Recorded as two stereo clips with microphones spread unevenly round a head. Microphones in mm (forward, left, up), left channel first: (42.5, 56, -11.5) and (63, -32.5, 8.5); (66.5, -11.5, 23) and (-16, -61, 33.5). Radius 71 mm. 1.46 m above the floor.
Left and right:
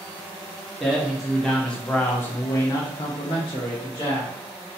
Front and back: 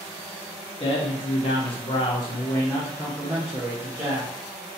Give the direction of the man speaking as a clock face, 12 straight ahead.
11 o'clock.